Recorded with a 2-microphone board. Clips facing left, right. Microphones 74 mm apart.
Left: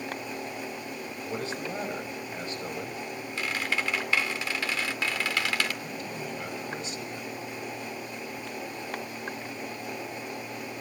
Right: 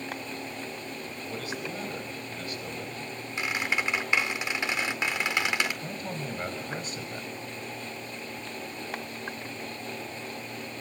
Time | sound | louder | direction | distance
1.3 | a man speaking | left 3 dB | 25° left (ahead or behind) | 6 m
3.4 | a squeak | right 1 dB | 20° right (ahead or behind) | 2 m
5.8 | a man speaking | right 1 dB | 45° right (ahead or behind) | 5.5 m